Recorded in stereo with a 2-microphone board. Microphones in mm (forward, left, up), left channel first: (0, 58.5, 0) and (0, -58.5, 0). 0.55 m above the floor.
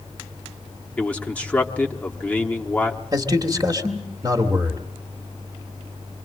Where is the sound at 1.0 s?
10° left (ahead or behind), 1.0 m.